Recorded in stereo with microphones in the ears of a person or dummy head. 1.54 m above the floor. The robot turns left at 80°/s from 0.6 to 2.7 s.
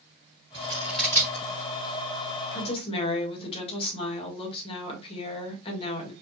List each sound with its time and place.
0.5 s scissors: 25° right (ahead or behind), 2.5 m; by 1.4 s 40° left (ahead or behind), 2.5 m
2.5 s a woman speaking: 45° left (ahead or behind), 2 m; by 6.1 s 30° left (ahead or behind), 2 m